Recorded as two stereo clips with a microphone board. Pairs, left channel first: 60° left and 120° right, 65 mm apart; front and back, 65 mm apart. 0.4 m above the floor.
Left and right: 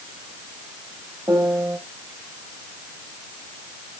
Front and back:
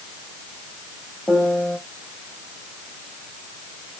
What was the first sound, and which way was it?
A piano, 90° right.